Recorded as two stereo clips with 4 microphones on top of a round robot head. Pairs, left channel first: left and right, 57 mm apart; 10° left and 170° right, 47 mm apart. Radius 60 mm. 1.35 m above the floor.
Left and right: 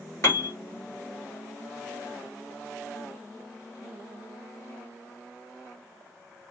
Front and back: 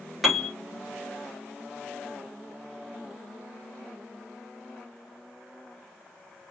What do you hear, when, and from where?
0.2 s a piano: 110° left, 0.8 m